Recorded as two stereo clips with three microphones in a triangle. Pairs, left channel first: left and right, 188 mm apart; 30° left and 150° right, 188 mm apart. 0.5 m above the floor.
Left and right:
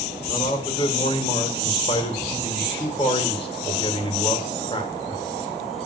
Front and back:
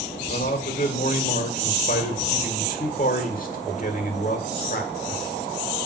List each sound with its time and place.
0.3 s a man speaking: 40° left, 1.7 m